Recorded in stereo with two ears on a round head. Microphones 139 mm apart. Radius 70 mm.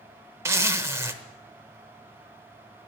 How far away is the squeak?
I don't hear a squeak.